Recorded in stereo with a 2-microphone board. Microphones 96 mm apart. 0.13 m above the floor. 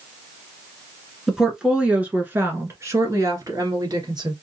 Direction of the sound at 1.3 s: 5° right (ahead or behind).